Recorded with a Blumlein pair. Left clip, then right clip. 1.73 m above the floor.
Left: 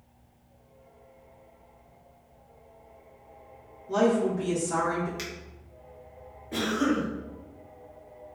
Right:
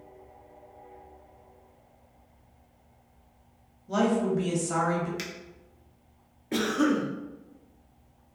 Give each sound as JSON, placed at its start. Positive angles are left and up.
{"t": 3.9, "sound": "a woman speaking", "azimuth_deg": -25, "distance_m": 1.1}
{"t": 5.2, "sound": "a finger snap", "azimuth_deg": -10, "distance_m": 0.6}
{"t": 6.5, "sound": "a cough", "azimuth_deg": -25, "distance_m": 0.6}